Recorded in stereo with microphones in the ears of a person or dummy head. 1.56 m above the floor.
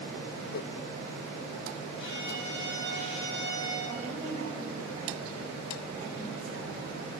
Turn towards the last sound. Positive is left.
turn(degrees=-35)  # may be behind; listen again after turning